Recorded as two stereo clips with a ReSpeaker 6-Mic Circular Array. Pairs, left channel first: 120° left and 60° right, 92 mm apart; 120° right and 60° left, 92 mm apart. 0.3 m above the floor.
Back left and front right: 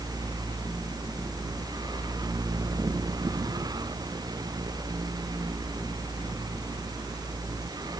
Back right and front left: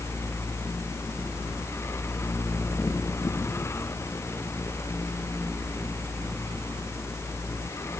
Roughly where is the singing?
I don't hear singing.